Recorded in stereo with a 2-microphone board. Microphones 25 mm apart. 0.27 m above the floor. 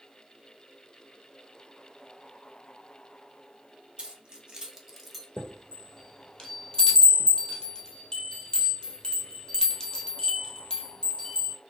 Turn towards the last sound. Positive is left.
turn(degrees=30)  # may be behind; listen again after turning